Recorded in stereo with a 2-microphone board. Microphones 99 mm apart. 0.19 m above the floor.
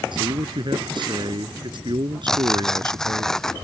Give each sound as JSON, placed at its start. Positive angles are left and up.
{"t": 0.1, "sound": "a man speaking", "side_deg": -55}
{"t": 2.3, "sound": "tearing paper", "side_deg": 5}